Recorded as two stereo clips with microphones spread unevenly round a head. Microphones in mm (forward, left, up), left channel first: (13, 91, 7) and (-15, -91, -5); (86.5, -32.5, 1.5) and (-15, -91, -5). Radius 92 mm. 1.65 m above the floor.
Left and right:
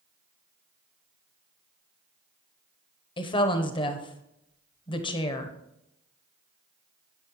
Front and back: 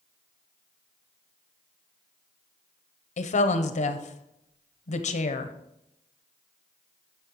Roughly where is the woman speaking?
Ahead.